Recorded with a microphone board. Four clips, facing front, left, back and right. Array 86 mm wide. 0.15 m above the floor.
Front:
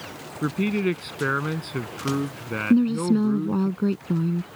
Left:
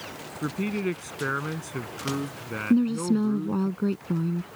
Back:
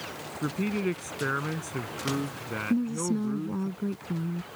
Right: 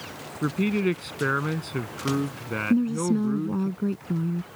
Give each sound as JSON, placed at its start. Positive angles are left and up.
{"t": 0.4, "sound": "a man speaking", "azimuth_deg": -30}
{"t": 2.7, "sound": "a woman speaking", "azimuth_deg": 25}